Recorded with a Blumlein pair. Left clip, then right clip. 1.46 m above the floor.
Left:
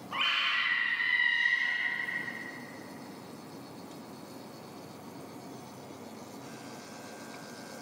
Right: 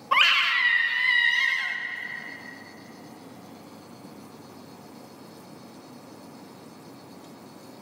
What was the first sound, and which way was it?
A scream, 55° right.